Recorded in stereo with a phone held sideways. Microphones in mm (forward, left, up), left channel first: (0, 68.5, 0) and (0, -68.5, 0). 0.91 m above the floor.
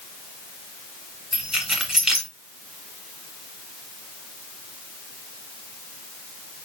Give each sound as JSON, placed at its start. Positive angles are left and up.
{"t": 1.3, "sound": "keys jangling", "side_deg": -5, "distance_m": 2.5}